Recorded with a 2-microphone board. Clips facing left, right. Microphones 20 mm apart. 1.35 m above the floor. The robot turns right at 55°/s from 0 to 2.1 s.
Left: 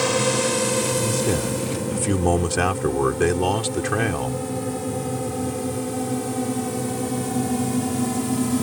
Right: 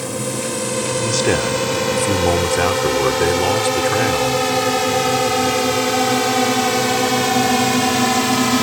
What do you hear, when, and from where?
0.0 s a drone: 40° left (ahead or behind); by 8.6 s 55° right (ahead or behind)
1.0 s a man speaking: 65° right; by 4.4 s 10° right